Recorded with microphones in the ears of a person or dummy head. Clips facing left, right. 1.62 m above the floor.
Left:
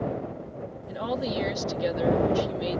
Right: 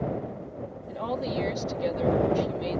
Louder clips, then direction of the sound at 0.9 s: Left 1 dB; 15° left (ahead or behind).